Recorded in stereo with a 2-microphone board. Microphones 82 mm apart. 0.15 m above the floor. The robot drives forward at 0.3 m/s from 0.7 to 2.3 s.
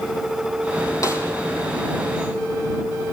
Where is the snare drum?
40° left (ahead or behind), 5.5 m.